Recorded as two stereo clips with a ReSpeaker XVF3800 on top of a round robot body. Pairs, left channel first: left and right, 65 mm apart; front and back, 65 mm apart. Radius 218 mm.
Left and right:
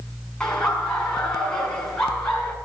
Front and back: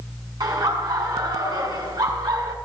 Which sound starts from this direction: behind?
Laughter, at 0.4 s.